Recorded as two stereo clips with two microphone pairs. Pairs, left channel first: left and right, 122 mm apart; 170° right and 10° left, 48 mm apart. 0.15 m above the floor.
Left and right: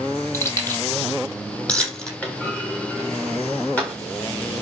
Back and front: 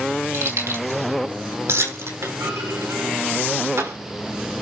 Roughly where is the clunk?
Ahead.